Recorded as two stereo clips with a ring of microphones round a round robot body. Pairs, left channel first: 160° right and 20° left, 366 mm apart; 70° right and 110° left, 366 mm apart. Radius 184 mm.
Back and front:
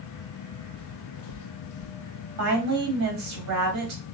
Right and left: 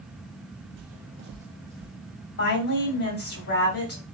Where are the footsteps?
125° left, 0.6 m; by 1.9 s 160° right, 1.1 m.